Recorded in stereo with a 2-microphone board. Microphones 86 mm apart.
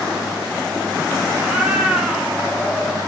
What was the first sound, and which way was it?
A cat meowing, 15° right (ahead or behind).